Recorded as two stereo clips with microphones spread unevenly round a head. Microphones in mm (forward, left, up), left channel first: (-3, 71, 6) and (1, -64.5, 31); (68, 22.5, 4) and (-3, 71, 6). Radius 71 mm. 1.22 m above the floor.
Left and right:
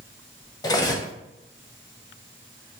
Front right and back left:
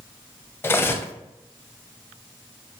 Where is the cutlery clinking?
25° left, 0.7 m.